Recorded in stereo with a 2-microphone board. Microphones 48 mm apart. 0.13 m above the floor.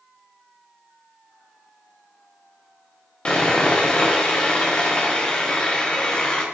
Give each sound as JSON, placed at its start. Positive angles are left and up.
{"t": 3.2, "sound": "sawing", "side_deg": 20, "distance_m": 3.5}